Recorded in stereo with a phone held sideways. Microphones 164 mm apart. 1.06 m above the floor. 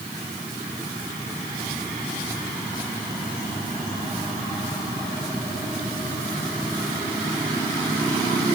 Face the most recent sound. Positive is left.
No sound to turn to.